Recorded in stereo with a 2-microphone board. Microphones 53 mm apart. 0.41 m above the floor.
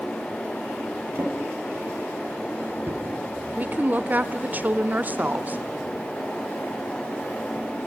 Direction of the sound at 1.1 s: 40° right (ahead or behind).